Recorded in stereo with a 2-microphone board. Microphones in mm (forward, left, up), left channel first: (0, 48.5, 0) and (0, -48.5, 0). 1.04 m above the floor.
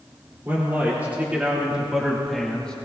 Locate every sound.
0.5 s a man speaking: 25° right (ahead or behind), 2.5 m; by 2.8 s 10° left (ahead or behind), 1.4 m